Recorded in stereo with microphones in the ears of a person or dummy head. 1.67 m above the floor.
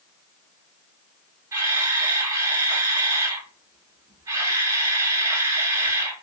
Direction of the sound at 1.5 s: 15° right (ahead or behind).